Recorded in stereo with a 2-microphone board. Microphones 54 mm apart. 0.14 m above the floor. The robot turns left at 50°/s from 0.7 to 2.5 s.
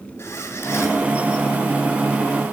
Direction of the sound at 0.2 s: 55° left (ahead or behind).